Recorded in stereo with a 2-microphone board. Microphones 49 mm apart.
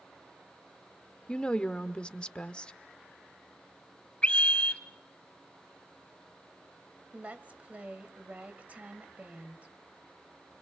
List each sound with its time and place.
1.3 s a woman speaking: 20° left (ahead or behind), 1.0 m
4.2 s a scream: 25° left (ahead or behind), 2.5 m
7.1 s a woman speaking: 30° right (ahead or behind), 1.9 m